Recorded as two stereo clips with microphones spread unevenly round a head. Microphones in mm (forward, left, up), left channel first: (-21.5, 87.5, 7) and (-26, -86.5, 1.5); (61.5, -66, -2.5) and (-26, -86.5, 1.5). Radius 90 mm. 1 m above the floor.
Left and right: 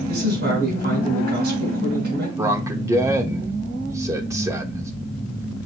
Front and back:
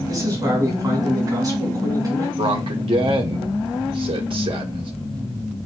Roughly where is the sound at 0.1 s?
Behind right.